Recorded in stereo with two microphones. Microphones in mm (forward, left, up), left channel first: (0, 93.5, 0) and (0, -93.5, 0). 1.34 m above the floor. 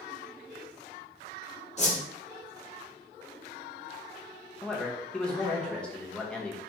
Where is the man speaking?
5° left (ahead or behind), 1.0 m.